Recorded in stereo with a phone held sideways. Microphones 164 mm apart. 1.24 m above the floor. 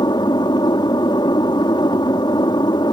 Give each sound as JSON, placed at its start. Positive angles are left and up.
{"t": 0.0, "sound": "an aircraft", "side_deg": 25}